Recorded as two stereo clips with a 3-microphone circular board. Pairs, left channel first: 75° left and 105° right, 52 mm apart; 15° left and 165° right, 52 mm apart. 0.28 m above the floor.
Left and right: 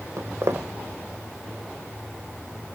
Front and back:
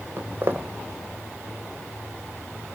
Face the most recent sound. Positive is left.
turn(degrees=-125)